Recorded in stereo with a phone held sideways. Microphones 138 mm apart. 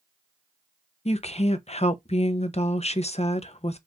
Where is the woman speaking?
50° left (ahead or behind), 0.6 m.